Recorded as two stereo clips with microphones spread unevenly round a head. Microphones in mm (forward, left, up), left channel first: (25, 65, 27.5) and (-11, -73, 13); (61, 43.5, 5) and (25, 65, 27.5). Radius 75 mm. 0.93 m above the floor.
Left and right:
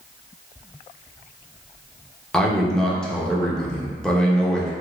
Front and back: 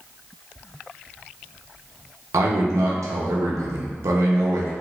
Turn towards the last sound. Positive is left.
turn(degrees=160)